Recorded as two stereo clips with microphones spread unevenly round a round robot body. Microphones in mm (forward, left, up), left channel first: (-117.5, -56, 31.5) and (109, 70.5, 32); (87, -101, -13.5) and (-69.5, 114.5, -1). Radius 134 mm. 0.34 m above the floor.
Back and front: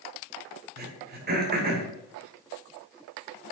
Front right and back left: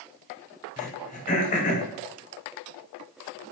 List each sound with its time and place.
0.8 s throat clearing: 10° right, 1.7 m